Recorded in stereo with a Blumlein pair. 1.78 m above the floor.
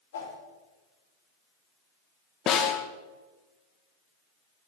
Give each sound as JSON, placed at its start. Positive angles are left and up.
{"t": 0.1, "sound": "a whoosh", "azimuth_deg": 60, "distance_m": 2.0}
{"t": 2.5, "sound": "a snare drum", "azimuth_deg": 30, "distance_m": 1.0}